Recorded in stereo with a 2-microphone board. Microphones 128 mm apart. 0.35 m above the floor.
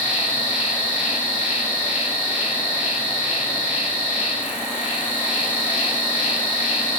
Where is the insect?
50° left (ahead or behind), 2.5 m.